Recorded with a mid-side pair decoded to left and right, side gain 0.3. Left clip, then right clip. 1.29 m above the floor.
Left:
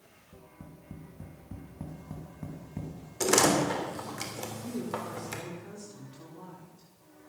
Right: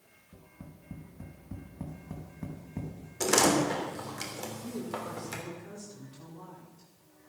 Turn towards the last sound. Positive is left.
turn(degrees=15)